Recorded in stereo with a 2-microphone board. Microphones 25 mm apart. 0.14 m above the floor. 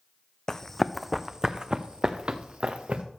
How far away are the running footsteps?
About 0.6 m.